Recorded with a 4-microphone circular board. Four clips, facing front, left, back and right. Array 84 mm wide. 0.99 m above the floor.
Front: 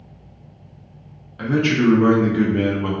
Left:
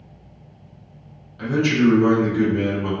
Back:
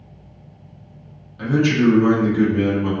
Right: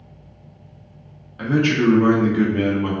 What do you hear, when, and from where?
1.4 s a man speaking: 45° right, 0.7 m